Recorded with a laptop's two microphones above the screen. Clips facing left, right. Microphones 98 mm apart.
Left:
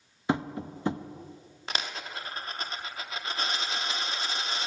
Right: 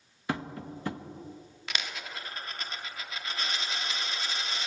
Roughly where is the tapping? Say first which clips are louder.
Left 5 dB; left.